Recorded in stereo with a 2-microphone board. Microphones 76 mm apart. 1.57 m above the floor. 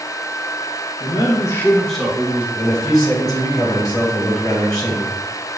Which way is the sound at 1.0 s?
75° left (ahead or behind).